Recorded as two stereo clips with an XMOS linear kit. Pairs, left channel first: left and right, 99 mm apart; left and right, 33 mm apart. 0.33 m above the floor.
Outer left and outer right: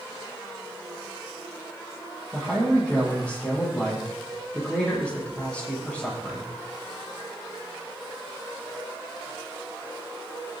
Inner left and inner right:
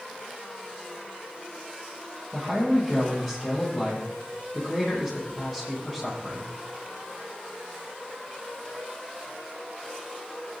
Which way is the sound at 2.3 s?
15° left (ahead or behind).